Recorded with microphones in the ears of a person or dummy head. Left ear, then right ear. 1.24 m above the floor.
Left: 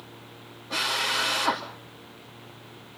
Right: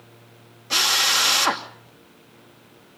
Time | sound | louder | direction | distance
0.7 | a drill | right 7 dB | 75° right (ahead or behind) | 2.5 m